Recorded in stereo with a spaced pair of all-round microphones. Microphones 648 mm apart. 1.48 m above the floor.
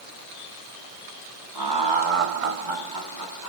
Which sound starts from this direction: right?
Laughter, at 1.6 s.